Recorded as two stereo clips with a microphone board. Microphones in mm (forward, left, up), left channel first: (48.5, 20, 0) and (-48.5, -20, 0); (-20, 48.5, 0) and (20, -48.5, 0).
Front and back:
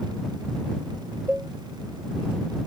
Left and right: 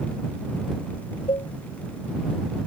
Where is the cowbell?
130° left.